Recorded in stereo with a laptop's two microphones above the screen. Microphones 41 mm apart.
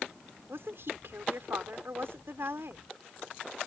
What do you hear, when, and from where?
0.5 s a woman speaking: 75° right (ahead or behind)